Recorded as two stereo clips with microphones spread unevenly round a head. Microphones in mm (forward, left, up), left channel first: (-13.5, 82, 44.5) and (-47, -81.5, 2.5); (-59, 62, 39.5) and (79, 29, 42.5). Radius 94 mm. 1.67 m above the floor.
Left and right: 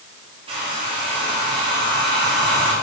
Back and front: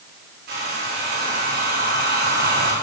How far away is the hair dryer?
About 4.5 m.